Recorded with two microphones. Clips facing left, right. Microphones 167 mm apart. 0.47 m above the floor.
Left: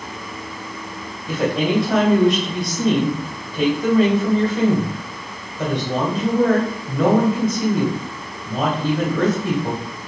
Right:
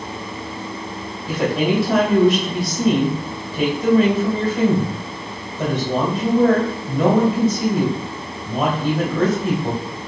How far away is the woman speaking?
About 2 m.